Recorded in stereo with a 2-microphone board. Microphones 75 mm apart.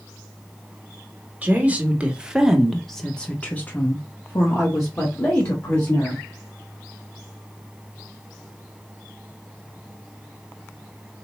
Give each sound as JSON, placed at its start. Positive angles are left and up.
{"t": 1.4, "sound": "a woman speaking", "side_deg": -20, "distance_m": 1.1}